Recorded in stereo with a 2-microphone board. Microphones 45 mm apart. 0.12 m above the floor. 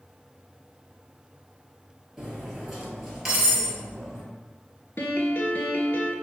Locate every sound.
2.2 s cutlery clinking: 5° right (ahead or behind), 1.4 m
5.0 s a piano: 55° left (ahead or behind), 0.6 m